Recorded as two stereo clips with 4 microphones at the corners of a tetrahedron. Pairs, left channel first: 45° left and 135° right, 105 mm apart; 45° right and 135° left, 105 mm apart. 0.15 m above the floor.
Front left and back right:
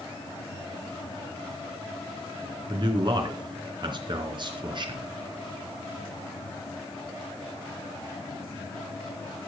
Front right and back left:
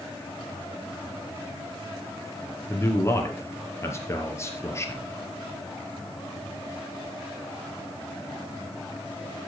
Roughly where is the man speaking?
Right.